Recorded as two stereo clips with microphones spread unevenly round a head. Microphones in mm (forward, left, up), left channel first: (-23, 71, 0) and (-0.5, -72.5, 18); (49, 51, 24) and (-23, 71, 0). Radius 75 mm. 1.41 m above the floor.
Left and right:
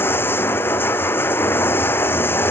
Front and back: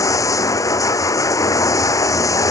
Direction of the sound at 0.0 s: 20° left.